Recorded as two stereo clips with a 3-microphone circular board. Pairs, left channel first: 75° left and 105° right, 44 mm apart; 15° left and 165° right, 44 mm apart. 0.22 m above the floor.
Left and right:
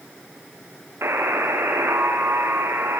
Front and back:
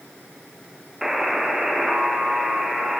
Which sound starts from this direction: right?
A buzzer, at 1.0 s.